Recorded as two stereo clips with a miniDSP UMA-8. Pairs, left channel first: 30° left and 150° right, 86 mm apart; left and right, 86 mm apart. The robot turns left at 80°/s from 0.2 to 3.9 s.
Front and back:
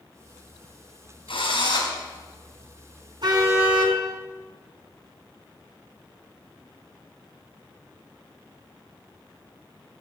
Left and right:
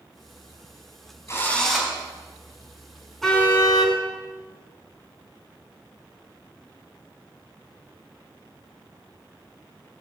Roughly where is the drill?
Ahead left.